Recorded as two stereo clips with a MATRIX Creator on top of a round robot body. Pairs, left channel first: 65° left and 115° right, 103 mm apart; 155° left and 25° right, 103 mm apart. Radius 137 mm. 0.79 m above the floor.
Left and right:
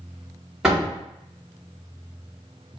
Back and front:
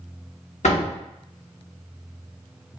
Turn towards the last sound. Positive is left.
turn(degrees=160)